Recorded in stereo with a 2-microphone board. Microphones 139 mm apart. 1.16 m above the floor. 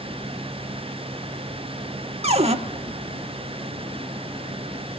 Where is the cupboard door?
50° right (ahead or behind), 1.0 m.